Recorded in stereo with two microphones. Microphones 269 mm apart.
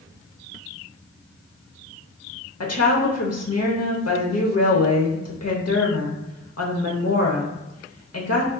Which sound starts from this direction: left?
A woman speaking, at 2.6 s.